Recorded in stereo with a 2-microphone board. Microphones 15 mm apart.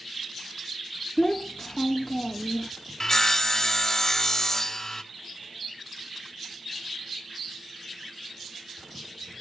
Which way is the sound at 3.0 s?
30° left (ahead or behind).